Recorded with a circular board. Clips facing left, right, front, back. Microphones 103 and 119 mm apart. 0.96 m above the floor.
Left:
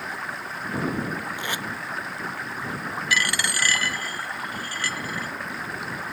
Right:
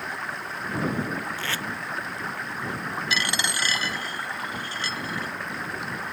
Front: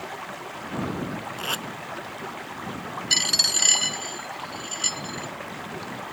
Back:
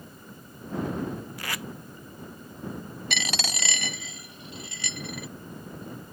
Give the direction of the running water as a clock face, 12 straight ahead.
12 o'clock.